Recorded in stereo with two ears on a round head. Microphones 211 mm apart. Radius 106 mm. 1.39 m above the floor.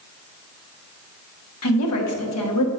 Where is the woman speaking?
85° left, 1.4 m.